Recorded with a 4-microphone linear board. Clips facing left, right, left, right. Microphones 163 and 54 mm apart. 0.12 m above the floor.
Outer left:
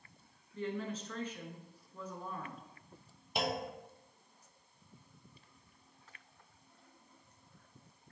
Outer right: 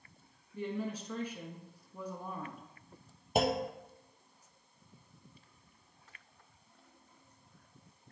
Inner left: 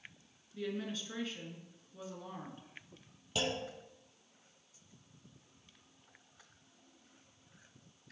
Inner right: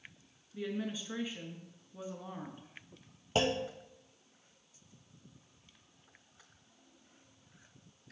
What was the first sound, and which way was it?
A woman speaking, 10° right (ahead or behind).